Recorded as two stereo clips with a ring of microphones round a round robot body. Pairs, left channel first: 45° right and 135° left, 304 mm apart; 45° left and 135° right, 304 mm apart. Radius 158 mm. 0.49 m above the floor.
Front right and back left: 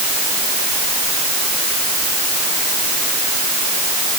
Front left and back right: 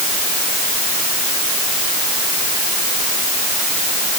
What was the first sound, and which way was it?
Only background noise.